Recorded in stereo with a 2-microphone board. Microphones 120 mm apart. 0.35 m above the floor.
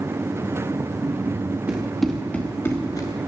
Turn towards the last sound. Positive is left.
turn(degrees=35)  # may be behind; listen again after turning